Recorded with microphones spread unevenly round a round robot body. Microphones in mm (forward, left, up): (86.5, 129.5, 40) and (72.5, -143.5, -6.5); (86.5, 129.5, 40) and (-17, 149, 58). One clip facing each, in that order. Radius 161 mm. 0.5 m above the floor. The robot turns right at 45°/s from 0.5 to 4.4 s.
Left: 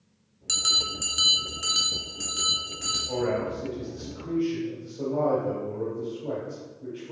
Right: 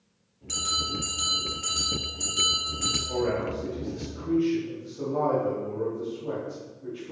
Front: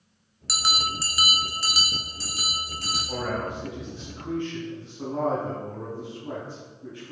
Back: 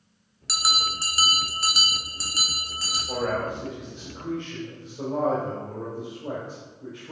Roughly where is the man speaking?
Behind left.